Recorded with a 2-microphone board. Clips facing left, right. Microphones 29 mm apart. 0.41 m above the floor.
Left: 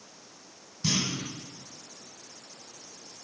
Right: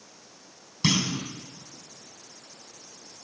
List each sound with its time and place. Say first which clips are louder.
0.8 s a clunk: right 4 dB; 75° right (ahead or behind), 2 m